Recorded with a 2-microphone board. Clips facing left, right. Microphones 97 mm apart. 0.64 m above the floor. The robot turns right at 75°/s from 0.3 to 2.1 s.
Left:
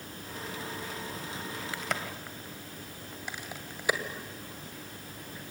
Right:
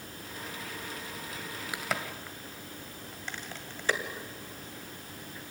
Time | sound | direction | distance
1.7 | a crack | 15° right (ahead or behind) | 2.0 m